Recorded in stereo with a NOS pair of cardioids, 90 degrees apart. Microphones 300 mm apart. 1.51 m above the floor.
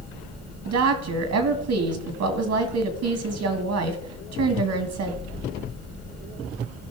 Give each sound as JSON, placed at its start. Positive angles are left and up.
{"t": 0.7, "sound": "a woman speaking", "azimuth_deg": -65, "distance_m": 1.9}